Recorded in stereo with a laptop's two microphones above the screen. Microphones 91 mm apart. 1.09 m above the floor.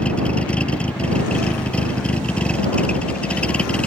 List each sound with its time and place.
0.0 s a vehicle: 15° left (ahead or behind)